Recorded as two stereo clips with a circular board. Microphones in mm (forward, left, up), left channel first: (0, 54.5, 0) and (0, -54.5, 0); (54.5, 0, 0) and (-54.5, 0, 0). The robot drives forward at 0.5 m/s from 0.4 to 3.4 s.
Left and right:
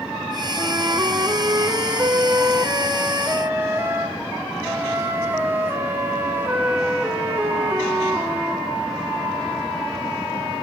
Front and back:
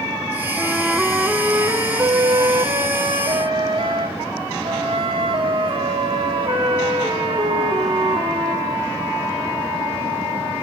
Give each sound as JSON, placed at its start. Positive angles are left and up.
{"t": 0.6, "sound": "a flute", "azimuth_deg": -80, "distance_m": 1.0}